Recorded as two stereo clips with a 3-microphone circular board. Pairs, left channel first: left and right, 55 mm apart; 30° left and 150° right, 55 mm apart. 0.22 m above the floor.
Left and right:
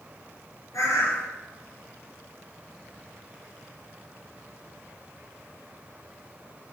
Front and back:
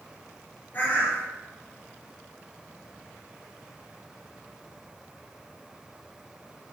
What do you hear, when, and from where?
0.7 s a bird: 80° left, 3 m